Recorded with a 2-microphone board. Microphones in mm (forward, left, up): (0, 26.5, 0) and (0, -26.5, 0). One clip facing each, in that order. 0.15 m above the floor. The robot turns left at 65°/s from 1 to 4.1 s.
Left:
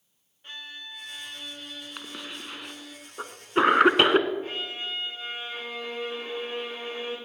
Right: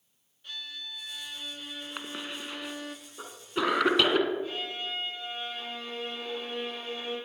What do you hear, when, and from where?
0.4 s a violin: 40° left, 0.9 m; by 3.0 s 85° right, 0.9 m
2.0 s a cough: 15° right (ahead or behind), 1.5 m; by 4.3 s 35° left (ahead or behind), 1.5 m
4.4 s a violin: 45° left (ahead or behind), 7 m